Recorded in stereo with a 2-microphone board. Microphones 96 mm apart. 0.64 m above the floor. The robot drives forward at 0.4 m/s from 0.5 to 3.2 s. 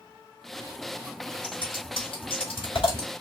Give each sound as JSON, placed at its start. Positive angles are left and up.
{"t": 1.4, "sound": "scissors", "side_deg": 60, "distance_m": 3.0}